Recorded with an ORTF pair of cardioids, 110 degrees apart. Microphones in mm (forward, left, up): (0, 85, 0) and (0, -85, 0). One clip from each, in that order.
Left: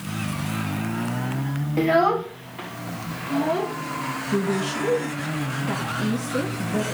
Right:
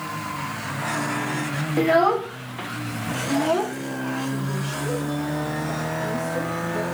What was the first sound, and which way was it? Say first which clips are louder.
A child speaking: right 1 dB; 5° right.